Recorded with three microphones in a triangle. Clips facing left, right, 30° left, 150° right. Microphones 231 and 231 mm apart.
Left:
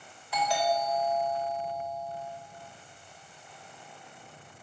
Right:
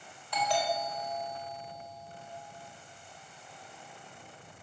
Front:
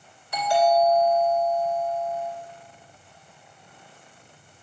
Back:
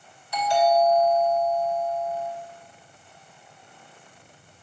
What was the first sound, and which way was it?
A doorbell, 5° left.